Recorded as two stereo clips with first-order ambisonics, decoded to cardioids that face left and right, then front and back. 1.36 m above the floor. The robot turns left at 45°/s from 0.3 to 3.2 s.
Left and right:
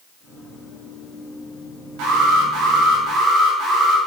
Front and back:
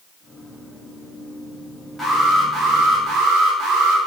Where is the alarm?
85° right, 5 m; by 4.0 s 135° right, 5 m.